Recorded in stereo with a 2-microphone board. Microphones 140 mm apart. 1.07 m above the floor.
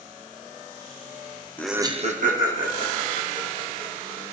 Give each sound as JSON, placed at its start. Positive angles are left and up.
{"t": 1.6, "sound": "laughter", "side_deg": 15, "distance_m": 0.6}